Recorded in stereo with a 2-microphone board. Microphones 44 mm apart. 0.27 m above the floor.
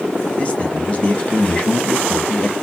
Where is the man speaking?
30° left (ahead or behind), 2 m.